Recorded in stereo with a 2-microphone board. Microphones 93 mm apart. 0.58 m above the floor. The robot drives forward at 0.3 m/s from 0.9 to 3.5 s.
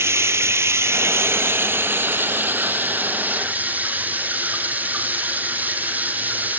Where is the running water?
30° right (ahead or behind), 1.1 m; by 6.6 s 15° right (ahead or behind), 1.8 m.